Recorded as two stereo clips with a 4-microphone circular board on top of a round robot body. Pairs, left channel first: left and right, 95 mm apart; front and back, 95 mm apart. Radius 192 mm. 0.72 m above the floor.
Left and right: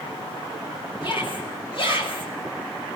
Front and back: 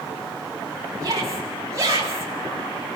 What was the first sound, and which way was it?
A shout, 125° left.